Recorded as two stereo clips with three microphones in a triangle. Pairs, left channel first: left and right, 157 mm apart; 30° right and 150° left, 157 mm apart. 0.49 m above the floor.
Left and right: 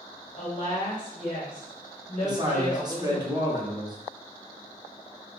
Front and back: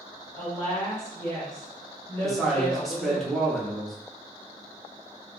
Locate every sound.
0.3 s a woman speaking: 100° left, 1.7 m
2.2 s a man speaking: 120° right, 0.7 m